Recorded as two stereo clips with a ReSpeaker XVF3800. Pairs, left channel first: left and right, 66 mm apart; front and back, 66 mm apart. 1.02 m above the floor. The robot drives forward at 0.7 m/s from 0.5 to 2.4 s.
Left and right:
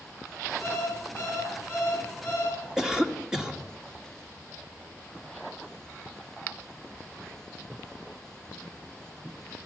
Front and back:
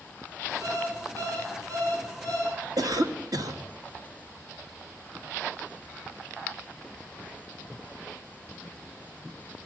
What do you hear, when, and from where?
0.6 s an alarm clock: 145° left, 6.5 m; by 2.6 s 150° left, 7.5 m
2.8 s a cough: 170° right, 1.8 m